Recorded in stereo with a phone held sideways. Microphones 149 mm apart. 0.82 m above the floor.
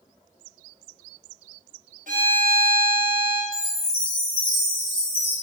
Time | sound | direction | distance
2.1 | a violin | 65° right (ahead or behind) | 0.6 m
3.5 | a chime | 35° right (ahead or behind) | 1.9 m